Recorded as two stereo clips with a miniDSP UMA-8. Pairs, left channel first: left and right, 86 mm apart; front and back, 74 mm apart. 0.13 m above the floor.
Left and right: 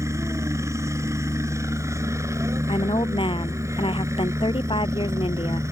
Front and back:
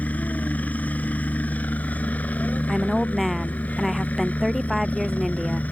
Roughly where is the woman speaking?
Left.